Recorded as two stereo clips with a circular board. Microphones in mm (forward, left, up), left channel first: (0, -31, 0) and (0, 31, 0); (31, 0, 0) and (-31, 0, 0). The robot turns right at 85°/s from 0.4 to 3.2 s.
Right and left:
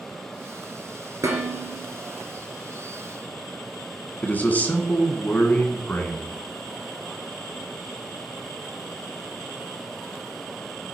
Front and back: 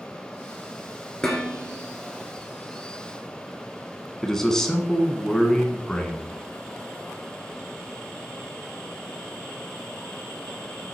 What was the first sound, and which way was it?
Dishes clattering, 75° left.